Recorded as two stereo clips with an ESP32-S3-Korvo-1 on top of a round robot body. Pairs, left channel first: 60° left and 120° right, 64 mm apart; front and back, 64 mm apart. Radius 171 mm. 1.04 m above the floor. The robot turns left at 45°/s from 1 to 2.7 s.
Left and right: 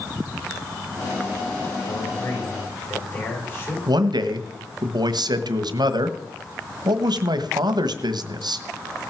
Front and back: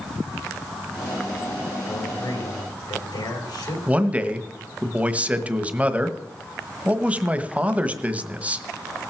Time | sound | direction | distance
1.9 | a man speaking | 40° left | 5 m
3.9 | a man speaking | 110° right | 1.3 m